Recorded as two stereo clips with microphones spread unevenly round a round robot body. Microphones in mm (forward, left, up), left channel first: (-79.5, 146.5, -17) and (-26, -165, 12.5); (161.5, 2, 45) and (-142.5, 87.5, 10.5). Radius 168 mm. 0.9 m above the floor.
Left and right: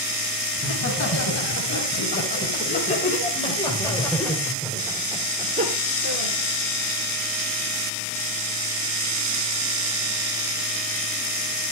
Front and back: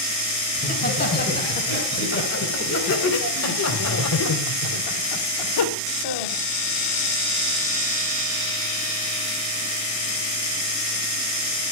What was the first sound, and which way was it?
Laughter, 50° left.